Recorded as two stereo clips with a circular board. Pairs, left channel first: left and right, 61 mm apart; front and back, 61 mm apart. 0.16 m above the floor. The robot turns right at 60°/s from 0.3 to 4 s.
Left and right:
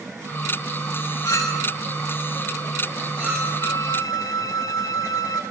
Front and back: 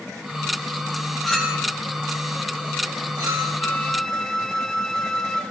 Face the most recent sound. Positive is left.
turn(degrees=85)